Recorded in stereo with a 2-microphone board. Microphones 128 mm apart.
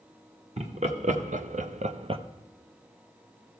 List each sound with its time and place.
0.6 s laughter: 60° right (ahead or behind), 1.3 m; by 2.2 s 40° right (ahead or behind), 0.7 m